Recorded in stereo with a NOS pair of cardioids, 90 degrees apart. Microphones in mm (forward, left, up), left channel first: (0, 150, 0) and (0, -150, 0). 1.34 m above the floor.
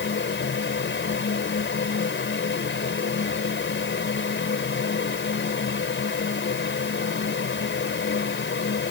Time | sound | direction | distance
0.0 | a fan | 40° left | ?